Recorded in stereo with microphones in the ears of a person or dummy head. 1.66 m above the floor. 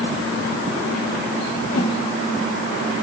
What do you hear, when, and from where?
1.7 s a whoosh: 60° left (ahead or behind), 2 m